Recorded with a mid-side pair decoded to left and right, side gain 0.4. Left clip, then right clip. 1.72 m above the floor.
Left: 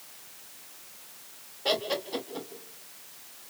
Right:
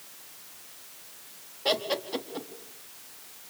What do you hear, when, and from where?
1.6 s laughter: 10° right, 4.5 m